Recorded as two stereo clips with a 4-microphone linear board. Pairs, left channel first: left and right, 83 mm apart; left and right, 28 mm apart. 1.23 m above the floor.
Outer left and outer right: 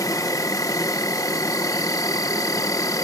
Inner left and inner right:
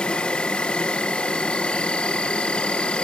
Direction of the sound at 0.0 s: 50° left (ahead or behind).